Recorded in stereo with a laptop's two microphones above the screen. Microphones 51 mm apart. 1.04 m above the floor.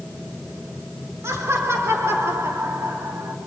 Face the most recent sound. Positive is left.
turn(degrees=-70)  # may be behind; listen again after turning